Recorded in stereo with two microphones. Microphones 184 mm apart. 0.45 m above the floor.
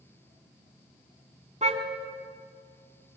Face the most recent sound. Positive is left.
turn(degrees=-40)  # may be behind; listen again after turning